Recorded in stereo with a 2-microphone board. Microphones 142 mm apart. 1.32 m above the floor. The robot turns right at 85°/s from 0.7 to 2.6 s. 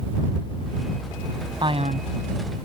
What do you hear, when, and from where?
1.6 s a man speaking: 150° right; by 2.1 s 110° right